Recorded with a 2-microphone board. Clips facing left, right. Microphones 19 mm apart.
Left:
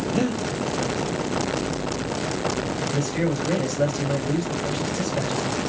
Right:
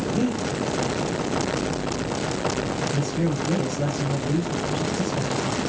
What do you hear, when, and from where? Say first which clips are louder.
0.1 s breathing: left 1 dB; 50° left (ahead or behind), 1.3 m
2.9 s a man speaking: left 1 dB; 70° left (ahead or behind), 7.5 m